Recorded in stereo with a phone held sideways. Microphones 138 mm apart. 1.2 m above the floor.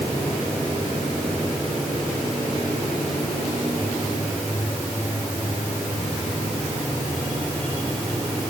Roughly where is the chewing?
No chewing in this recording.